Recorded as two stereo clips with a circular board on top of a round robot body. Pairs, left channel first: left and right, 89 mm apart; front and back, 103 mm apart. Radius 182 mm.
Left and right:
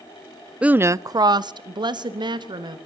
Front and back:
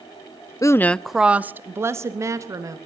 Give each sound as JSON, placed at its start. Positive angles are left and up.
{"t": 0.6, "sound": "a woman speaking", "azimuth_deg": -20, "distance_m": 0.6}